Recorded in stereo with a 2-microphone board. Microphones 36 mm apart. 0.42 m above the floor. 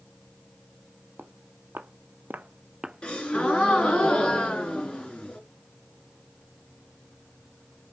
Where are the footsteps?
75° right (ahead or behind), 1.3 m; by 4.0 s 40° left (ahead or behind), 0.9 m.